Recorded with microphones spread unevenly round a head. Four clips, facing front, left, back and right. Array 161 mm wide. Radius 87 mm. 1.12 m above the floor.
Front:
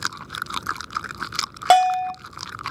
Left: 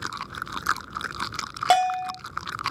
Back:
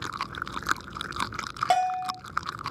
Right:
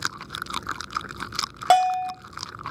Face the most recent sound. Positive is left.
turn(degrees=-30)